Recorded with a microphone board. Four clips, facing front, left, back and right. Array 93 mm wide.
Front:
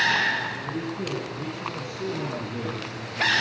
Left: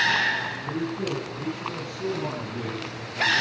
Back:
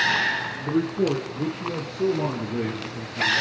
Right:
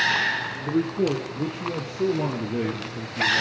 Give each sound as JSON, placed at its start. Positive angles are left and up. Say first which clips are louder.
{"t": 0.6, "sound": "a man speaking", "louder": "right 5 dB, back 7 dB", "azimuth_deg": -140, "distance_m": 3.5}